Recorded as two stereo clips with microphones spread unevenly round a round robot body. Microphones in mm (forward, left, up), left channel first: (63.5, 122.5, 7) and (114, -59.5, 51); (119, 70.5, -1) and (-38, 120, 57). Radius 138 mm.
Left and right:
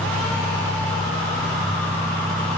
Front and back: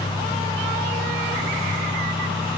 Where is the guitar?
No guitar in this recording.